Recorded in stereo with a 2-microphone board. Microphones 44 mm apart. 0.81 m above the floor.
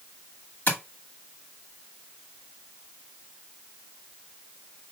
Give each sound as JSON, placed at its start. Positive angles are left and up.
{"t": 0.7, "sound": "tapping", "side_deg": 40, "distance_m": 1.7}